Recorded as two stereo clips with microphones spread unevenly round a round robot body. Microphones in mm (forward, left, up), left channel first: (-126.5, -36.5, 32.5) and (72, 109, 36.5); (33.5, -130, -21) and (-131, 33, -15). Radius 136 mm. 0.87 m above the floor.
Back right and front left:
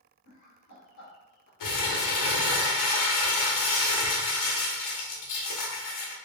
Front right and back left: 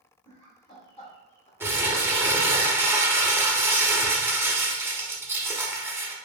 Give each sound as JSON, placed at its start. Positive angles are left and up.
{"t": 0.2, "sound": "laughter", "azimuth_deg": -115, "distance_m": 1.3}
{"t": 1.6, "sound": "crumpling", "azimuth_deg": -145, "distance_m": 0.8}